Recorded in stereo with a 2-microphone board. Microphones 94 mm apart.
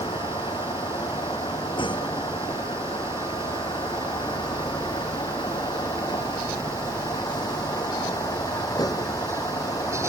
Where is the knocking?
I don't hear knocking.